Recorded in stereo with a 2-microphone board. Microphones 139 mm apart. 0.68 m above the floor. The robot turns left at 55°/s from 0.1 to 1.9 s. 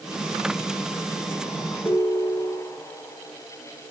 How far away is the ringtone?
About 1.4 m.